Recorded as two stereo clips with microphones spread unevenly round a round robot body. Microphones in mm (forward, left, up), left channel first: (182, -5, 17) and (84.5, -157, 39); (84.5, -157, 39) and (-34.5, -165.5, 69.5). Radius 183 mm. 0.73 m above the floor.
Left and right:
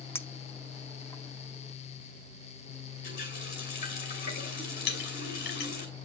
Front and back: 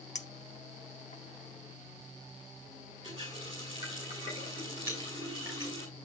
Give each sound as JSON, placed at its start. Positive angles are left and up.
{"t": 0.1, "sound": "a clink", "azimuth_deg": -20, "distance_m": 0.9}
{"t": 3.0, "sound": "a running tap", "azimuth_deg": 115, "distance_m": 1.2}
{"t": 4.9, "sound": "a clink", "azimuth_deg": 100, "distance_m": 1.4}